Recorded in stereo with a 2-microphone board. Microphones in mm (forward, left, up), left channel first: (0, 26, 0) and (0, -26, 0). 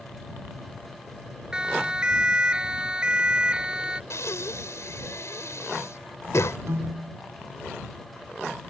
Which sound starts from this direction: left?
Breathing, at 4.1 s.